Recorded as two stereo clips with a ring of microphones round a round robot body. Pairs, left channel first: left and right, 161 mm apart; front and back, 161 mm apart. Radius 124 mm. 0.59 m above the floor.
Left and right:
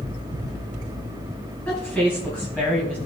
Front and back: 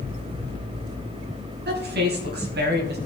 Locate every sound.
1.6 s a woman speaking: 170° left, 4 m; by 3.0 s 175° left, 3 m